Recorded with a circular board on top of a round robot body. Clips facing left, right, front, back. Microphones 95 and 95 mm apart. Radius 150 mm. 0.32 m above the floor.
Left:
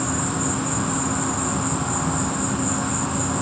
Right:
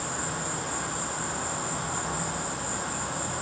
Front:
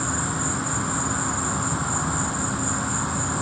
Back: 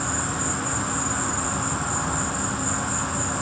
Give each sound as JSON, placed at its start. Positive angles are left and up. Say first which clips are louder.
{"t": 0.0, "sound": "an insect", "louder": "left 8 dB, front 1 dB", "azimuth_deg": 75, "distance_m": 1.1}